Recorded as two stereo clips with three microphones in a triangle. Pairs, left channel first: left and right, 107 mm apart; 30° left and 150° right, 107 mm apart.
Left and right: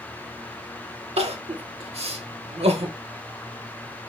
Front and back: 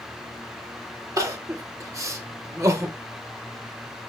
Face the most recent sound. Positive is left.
turn(degrees=-90)